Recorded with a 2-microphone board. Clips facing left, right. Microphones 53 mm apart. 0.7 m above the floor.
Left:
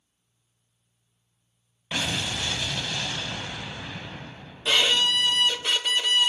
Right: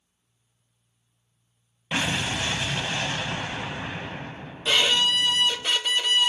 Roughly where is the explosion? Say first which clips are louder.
Right 3 dB; right.